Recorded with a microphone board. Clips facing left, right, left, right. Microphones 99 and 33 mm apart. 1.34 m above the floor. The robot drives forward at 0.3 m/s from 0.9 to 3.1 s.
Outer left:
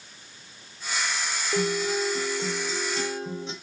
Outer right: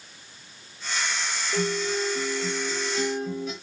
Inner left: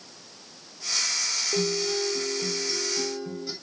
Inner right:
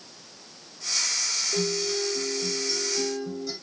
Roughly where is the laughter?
I don't hear laughter.